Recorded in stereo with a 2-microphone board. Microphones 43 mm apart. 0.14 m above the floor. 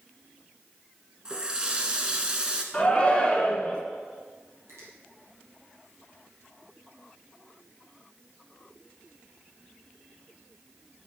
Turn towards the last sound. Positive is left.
turn(degrees=-70)  # may be behind; listen again after turning